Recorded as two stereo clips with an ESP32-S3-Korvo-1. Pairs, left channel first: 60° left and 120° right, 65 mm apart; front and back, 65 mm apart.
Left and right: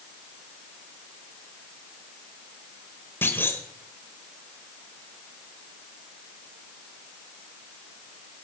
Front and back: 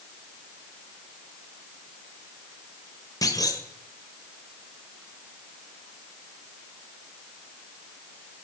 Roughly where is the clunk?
Ahead.